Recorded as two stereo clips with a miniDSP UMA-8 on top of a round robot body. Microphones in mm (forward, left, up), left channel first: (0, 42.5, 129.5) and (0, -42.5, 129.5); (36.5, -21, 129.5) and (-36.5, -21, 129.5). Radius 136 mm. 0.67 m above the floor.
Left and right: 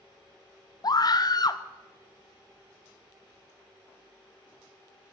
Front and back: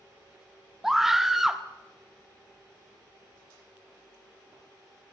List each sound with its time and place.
0.8 s a scream: 95° left, 0.8 m